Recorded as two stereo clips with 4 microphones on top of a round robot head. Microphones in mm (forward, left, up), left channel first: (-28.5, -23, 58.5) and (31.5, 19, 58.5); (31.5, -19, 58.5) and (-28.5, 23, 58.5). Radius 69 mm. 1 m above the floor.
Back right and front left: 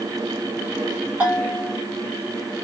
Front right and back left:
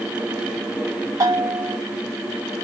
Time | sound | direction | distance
1.2 | a bell | 105° left | 1.9 m